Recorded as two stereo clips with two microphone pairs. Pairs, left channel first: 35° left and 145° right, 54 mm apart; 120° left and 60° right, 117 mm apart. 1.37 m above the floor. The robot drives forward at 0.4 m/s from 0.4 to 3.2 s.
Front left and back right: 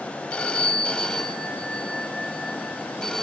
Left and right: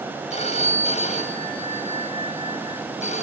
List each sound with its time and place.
0.3 s a phone ringing: 105° left, 5.5 m; by 3.2 s 115° left, 5.5 m